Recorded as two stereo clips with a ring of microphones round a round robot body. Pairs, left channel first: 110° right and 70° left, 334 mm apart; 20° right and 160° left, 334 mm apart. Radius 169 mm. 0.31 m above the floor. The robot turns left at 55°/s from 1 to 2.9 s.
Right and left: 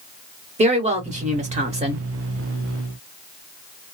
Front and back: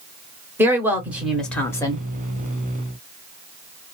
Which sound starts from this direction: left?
A woman speaking, at 0.6 s.